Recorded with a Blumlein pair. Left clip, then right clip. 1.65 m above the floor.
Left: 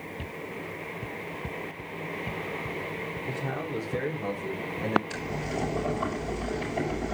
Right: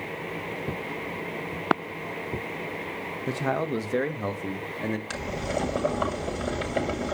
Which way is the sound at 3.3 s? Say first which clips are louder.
Right 9 dB; 35° right.